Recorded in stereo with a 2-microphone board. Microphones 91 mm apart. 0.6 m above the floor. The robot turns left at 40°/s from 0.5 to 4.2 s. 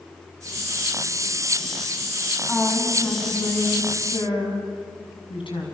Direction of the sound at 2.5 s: Straight behind.